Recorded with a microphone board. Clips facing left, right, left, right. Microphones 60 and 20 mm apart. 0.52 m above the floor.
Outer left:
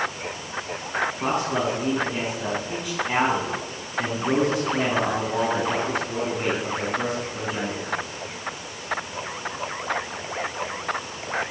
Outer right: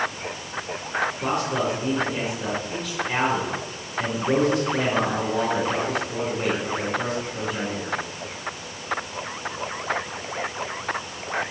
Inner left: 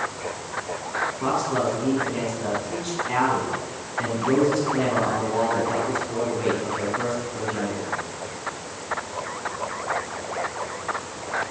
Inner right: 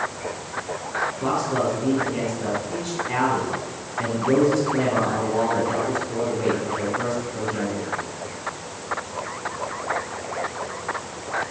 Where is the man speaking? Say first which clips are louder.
Even, even; 25° left (ahead or behind), 5 m.